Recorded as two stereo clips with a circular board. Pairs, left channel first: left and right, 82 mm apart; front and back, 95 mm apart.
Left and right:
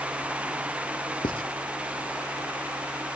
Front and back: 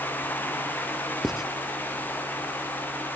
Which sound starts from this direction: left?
Writing, at 1.2 s.